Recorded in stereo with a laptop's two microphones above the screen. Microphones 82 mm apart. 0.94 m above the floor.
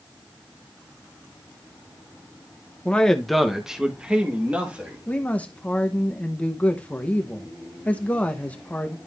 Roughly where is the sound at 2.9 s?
Centre.